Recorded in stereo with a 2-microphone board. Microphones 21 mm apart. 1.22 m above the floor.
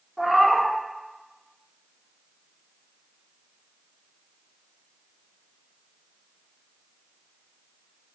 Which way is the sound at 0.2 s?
15° right (ahead or behind).